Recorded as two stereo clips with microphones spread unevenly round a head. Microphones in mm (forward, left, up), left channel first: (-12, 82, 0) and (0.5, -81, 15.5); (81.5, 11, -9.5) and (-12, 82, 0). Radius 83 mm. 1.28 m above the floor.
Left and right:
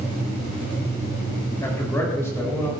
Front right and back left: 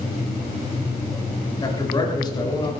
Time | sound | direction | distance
1.6 | a man speaking | 20° left | 7 m